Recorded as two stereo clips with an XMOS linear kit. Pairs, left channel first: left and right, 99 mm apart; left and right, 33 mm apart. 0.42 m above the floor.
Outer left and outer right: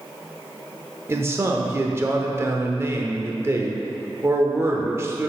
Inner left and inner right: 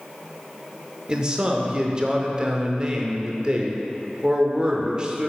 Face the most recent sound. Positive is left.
turn(degrees=-25)  # may be behind; listen again after turning